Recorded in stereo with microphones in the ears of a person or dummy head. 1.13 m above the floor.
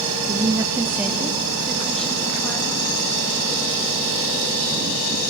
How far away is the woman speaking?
About 1.8 m.